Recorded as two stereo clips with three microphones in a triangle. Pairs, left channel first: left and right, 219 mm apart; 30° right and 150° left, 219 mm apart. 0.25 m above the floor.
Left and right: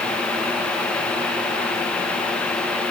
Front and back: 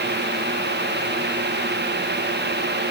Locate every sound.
Only background noise.